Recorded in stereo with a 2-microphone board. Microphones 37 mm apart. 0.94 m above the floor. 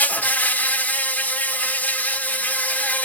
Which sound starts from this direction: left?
An insect, at 0.0 s.